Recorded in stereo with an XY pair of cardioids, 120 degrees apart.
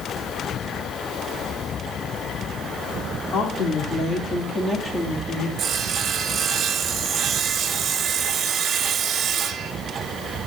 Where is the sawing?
50° right, 1.4 m.